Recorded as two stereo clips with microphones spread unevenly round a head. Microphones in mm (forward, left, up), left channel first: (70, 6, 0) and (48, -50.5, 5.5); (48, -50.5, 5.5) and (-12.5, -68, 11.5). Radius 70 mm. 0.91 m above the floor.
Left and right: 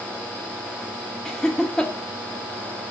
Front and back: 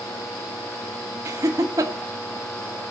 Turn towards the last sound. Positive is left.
turn(degrees=145)